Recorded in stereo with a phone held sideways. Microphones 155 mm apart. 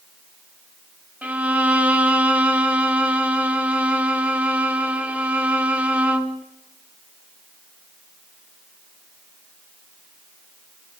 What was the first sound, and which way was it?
A violin, 10° right (ahead or behind).